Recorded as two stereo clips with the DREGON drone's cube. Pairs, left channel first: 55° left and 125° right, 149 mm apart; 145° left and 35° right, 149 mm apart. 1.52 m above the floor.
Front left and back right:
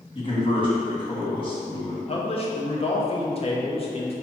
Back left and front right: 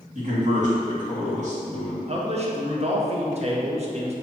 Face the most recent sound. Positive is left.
turn(degrees=10)